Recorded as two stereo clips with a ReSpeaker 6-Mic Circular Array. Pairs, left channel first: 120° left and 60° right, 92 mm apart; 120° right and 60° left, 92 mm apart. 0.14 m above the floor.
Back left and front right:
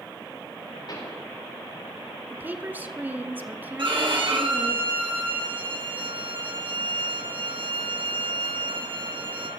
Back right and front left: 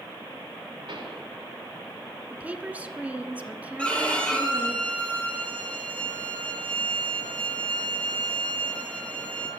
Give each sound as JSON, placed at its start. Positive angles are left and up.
{"t": 0.9, "sound": "a pop", "azimuth_deg": 80, "distance_m": 8.0}
{"t": 2.3, "sound": "a woman speaking", "azimuth_deg": -5, "distance_m": 1.3}
{"t": 3.8, "sound": "a violin", "azimuth_deg": -45, "distance_m": 3.5}